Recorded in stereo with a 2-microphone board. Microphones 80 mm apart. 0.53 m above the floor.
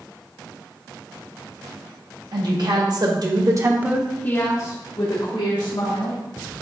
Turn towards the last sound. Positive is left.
turn(degrees=70)  # may be behind; listen again after turning